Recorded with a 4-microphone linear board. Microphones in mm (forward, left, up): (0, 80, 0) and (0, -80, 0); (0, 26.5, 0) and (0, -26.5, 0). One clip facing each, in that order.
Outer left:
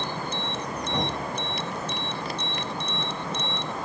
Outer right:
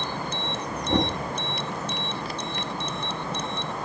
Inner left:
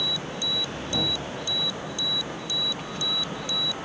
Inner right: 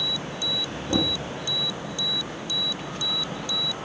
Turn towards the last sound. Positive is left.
turn(degrees=-40)  # may be behind; listen again after turning